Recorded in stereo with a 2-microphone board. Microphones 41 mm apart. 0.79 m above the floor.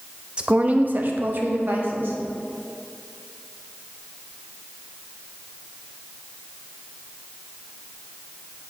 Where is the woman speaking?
25° right (ahead or behind), 0.5 m; by 2.2 s 55° right (ahead or behind), 1.3 m.